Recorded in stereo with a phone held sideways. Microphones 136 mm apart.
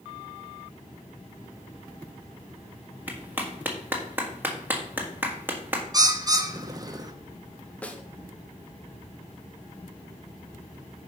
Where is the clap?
15° right (ahead or behind), 1.7 m.